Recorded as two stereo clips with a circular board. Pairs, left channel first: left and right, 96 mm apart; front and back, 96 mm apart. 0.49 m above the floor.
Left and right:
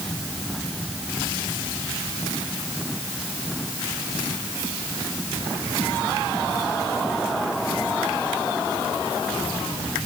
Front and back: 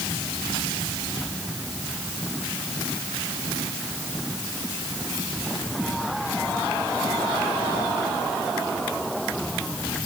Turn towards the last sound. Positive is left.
No sound to turn to.